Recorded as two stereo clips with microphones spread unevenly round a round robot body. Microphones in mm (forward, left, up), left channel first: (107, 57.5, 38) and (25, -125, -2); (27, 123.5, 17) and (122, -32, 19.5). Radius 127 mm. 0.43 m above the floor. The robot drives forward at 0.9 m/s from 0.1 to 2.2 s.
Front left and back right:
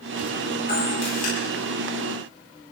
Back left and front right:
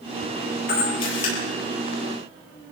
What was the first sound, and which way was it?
A camera shutter, 120° left.